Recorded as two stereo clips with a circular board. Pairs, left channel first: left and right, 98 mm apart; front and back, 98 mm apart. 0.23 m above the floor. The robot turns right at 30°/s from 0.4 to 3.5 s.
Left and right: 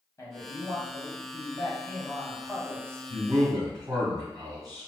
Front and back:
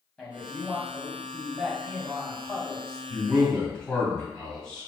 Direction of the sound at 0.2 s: 80° left.